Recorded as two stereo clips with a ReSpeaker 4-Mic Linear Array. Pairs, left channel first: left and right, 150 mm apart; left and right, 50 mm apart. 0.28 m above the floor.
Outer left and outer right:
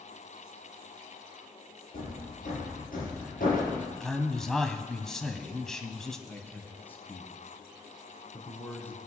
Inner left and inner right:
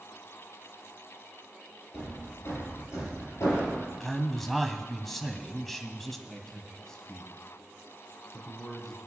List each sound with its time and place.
1.9 s hammering: 70° left (ahead or behind), 6.5 m
4.0 s a man speaking: 5° left (ahead or behind), 1.5 m
6.3 s a man speaking: 15° left (ahead or behind), 3 m